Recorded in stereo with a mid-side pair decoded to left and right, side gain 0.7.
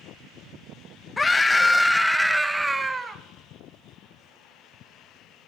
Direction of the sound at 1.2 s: 20° left.